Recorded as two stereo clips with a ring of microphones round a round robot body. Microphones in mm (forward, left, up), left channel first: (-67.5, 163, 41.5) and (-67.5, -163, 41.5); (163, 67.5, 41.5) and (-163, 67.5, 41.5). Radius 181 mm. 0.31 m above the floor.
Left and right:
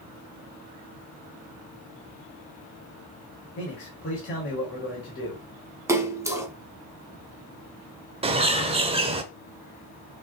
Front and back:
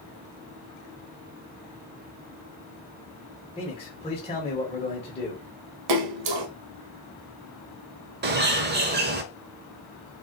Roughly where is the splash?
Behind.